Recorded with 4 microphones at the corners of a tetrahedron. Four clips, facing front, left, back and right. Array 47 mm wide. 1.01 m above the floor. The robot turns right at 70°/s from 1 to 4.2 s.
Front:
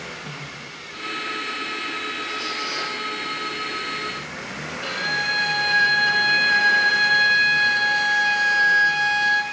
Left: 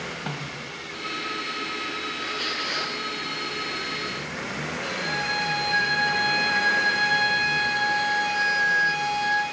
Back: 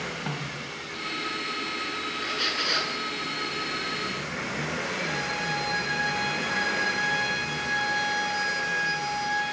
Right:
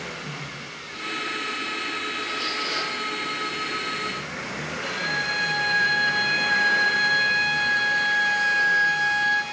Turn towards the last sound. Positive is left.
turn(degrees=-20)